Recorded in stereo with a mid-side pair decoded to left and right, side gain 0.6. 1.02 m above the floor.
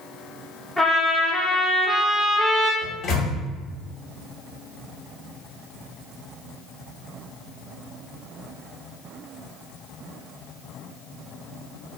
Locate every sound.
0.8 s a trumpet: 5° left, 0.9 m
2.8 s a microwave: 50° left, 1.0 m